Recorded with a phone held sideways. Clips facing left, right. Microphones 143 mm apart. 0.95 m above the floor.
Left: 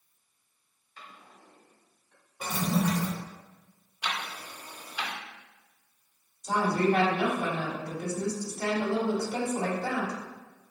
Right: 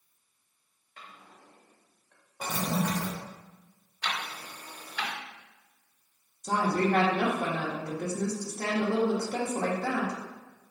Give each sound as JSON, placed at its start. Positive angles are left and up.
{"t": 1.0, "sound": "a drawer", "side_deg": -60, "distance_m": 1.3}
{"t": 2.4, "sound": "a toilet flushing", "side_deg": -40, "distance_m": 1.0}
{"t": 4.0, "sound": "ticking", "side_deg": 10, "distance_m": 0.7}
{"t": 6.4, "sound": "a woman speaking", "side_deg": -55, "distance_m": 1.4}